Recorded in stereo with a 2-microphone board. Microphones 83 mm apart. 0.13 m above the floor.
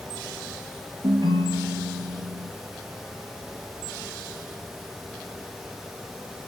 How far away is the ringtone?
About 2 m.